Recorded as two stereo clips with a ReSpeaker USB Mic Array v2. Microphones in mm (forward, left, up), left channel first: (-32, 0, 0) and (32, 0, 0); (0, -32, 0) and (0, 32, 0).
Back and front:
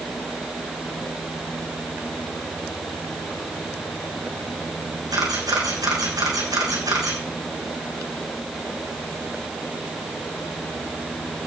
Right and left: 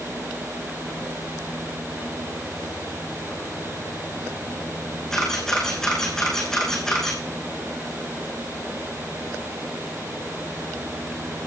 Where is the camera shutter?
10° right, 6 m.